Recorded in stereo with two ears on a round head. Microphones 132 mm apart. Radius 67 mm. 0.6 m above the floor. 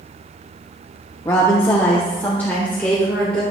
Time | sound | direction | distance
1.2 | a woman speaking | 20° left (ahead or behind) | 0.9 m